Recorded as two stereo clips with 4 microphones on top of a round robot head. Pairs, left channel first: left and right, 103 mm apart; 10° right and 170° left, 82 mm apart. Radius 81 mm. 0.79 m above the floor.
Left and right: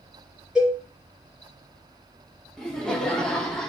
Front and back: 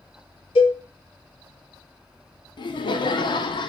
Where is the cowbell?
5° right, 3.5 m.